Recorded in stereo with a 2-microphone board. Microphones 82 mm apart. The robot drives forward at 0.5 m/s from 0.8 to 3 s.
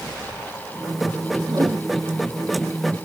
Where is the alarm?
I don't hear an alarm.